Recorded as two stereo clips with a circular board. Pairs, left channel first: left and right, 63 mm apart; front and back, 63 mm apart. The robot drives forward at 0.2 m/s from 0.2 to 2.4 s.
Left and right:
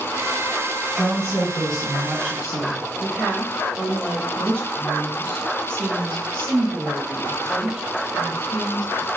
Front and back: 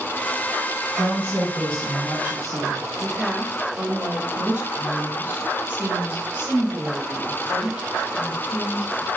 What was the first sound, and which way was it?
A woman speaking, 175° left.